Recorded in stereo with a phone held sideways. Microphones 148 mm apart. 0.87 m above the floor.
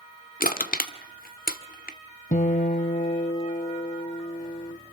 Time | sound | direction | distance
0.4 | crushing | 75° left (ahead or behind) | 1.4 m
2.3 | a guitar | 60° left (ahead or behind) | 1.2 m